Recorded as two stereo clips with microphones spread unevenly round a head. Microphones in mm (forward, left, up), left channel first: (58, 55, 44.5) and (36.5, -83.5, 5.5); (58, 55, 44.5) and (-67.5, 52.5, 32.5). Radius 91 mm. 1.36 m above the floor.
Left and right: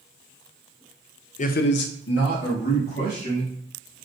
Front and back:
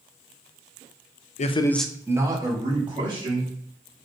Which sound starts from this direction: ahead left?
A man speaking, at 1.4 s.